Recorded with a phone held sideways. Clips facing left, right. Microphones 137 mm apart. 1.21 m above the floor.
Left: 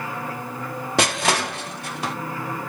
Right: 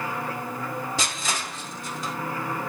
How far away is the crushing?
About 0.8 m.